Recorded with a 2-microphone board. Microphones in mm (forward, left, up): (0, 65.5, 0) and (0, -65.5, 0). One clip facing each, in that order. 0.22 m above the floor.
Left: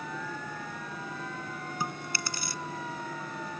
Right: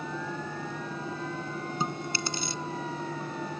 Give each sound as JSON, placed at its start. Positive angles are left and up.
{"t": 1.8, "sound": "chewing", "side_deg": -25}